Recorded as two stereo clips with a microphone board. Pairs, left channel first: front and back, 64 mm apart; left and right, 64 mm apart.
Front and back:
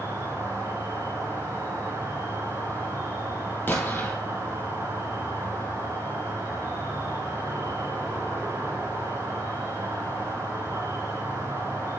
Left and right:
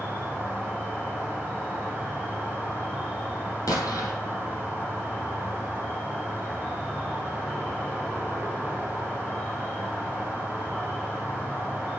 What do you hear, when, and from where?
0.0 s an insect: 160° left, 3 m
3.7 s an explosion: 60° left, 1.8 m